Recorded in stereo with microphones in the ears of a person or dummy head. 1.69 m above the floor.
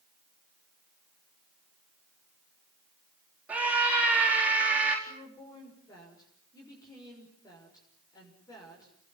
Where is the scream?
10° right (ahead or behind), 4 m.